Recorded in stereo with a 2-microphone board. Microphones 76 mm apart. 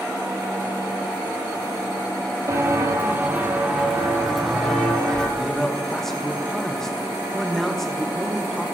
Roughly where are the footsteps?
Right.